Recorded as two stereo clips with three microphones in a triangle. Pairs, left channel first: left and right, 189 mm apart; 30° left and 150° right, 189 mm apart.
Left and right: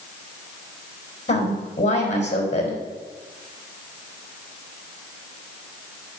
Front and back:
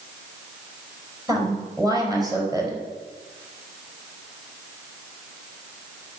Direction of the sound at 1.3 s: 140° left.